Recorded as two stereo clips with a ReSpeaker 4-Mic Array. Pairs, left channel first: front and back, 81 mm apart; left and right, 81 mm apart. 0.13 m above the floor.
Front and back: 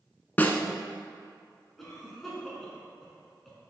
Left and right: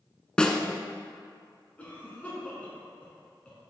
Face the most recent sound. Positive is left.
turn(degrees=80)